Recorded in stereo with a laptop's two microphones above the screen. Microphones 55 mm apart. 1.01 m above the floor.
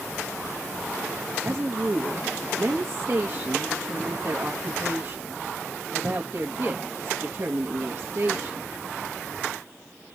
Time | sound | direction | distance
1.4 | a woman speaking | 45° right (ahead or behind) | 1.4 m